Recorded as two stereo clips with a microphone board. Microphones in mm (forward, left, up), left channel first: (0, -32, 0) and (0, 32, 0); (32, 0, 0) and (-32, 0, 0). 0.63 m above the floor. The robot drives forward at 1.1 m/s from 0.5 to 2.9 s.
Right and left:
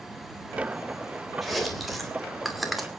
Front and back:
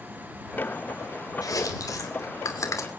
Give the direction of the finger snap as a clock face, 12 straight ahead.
I don't hear a finger snap.